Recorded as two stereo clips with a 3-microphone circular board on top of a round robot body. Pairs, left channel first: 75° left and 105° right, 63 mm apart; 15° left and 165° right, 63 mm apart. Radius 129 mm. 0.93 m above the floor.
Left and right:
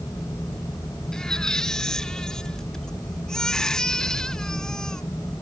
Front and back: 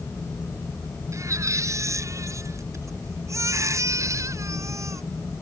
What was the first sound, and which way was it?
A baby crying, 155° left.